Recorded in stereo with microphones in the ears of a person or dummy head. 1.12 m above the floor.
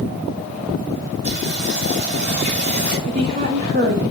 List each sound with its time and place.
1.2 s singing: 55° right (ahead or behind), 6 m
3.1 s a woman speaking: 50° right (ahead or behind), 2.5 m